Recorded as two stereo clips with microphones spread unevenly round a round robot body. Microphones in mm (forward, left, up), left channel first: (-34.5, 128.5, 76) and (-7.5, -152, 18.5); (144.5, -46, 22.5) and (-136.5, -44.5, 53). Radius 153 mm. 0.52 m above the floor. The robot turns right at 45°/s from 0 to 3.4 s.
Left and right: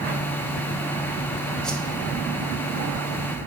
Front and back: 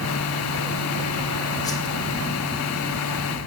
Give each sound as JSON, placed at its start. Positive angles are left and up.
{"t": 1.6, "sound": "a whoosh", "azimuth_deg": -25, "distance_m": 1.0}